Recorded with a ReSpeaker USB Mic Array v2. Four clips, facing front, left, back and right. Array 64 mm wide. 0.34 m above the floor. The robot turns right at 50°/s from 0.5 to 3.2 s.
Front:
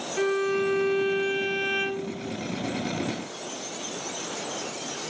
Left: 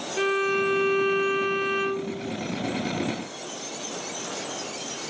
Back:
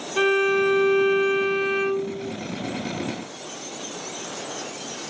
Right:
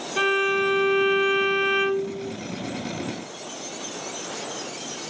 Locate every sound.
0.2 s a violin: 140° right, 0.8 m; by 2.3 s 50° right, 0.8 m